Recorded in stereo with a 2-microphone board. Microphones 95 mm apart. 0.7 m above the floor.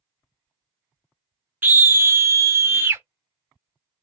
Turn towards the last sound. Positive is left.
turn(degrees=-25)  # may be behind; listen again after turning